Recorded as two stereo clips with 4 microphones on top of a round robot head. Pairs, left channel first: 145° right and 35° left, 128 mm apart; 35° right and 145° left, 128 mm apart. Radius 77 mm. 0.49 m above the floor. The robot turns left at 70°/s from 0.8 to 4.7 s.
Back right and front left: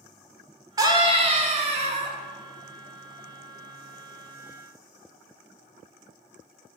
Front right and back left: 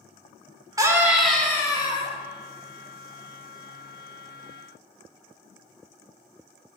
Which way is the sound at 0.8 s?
90° left.